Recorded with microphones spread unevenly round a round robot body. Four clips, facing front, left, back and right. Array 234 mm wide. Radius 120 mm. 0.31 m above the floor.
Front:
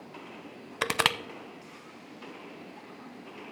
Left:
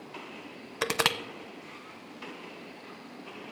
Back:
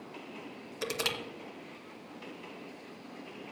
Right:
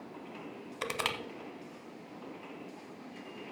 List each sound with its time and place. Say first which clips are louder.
0.8 s crushing: left 7 dB, front 7 dB; 40° left, 0.7 m